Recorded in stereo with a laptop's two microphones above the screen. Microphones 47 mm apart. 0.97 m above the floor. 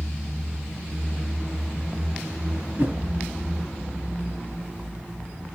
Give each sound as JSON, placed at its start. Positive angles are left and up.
{"t": 2.8, "sound": "a whoosh", "side_deg": -40, "distance_m": 2.5}